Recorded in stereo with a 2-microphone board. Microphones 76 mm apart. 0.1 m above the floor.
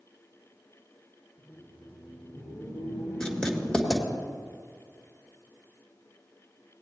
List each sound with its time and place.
1.4 s laughter: 55° left (ahead or behind), 1.8 m; by 4.2 s 80° left, 5 m
3.2 s writing: 10° left (ahead or behind), 1.7 m